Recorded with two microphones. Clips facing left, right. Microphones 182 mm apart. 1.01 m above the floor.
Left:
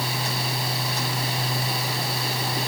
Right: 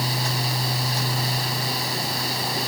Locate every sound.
Only background noise.